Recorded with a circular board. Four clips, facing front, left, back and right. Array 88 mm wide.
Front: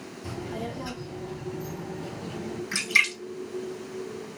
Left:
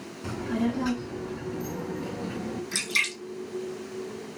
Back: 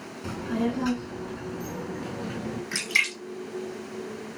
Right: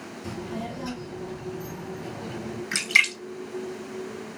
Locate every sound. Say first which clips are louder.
0.2 s a child speaking: left 6 dB, back 7 dB; 145° left, 3 m; by 2.6 s 175° left, 3.5 m
2.7 s a splash: right 6 dB, front 5 dB; 90° right, 1.9 m